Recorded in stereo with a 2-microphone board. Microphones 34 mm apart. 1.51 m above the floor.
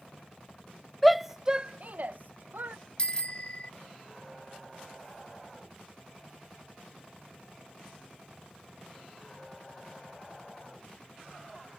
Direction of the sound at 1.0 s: Centre (ahead or behind).